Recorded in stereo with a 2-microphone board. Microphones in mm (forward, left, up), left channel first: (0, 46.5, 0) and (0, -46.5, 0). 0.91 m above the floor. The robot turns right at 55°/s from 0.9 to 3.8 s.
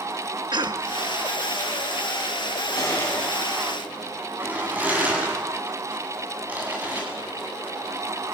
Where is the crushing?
40° left (ahead or behind), 8.5 m; by 7.0 s 20° right (ahead or behind), 8.5 m.